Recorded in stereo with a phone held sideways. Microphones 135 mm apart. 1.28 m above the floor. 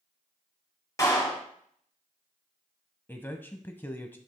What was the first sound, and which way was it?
A clap, 25° left (ahead or behind).